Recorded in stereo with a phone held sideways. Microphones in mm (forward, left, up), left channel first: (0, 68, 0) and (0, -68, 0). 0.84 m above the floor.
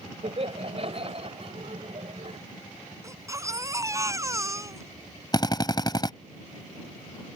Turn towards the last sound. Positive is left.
turn(degrees=30)  # may be behind; listen again after turning